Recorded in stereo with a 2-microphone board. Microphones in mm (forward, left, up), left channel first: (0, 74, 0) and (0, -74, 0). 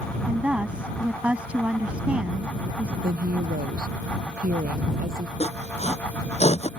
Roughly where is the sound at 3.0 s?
Right.